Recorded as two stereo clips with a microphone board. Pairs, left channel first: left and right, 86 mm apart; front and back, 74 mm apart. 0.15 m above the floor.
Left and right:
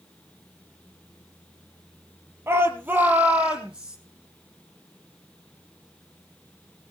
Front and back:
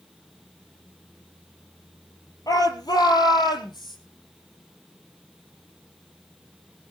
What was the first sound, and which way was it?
A shout, 30° right.